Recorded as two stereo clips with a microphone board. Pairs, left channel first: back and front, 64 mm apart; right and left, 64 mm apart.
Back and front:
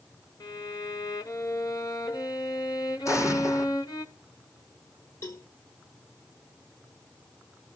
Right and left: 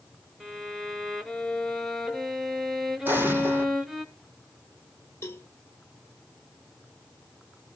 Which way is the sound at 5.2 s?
145° right.